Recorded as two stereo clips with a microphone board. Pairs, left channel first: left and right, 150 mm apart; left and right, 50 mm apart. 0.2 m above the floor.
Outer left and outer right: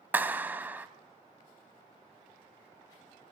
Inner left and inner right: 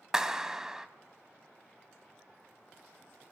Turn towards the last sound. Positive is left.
turn(degrees=-10)  # may be behind; listen again after turning